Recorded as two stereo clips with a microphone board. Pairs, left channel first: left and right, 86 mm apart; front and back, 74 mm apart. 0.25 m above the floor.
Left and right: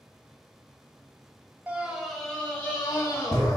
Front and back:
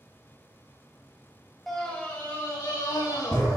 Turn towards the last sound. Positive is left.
turn(degrees=40)